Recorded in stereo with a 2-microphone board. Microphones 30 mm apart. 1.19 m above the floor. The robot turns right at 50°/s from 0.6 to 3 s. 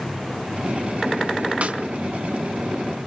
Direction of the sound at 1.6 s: 55° right (ahead or behind).